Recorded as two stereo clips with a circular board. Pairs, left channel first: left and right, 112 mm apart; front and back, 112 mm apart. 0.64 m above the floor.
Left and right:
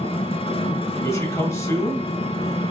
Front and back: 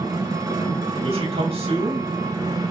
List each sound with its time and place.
0.0 s an engine running: 125° left, 2 m
1.0 s a man speaking: 155° left, 4 m